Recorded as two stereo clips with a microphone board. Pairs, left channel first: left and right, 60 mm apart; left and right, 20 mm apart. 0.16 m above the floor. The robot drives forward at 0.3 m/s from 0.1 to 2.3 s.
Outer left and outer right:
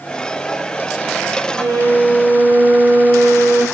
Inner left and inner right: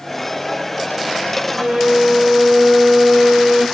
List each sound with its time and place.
1.5 s a violin: 75° right (ahead or behind), 5.5 m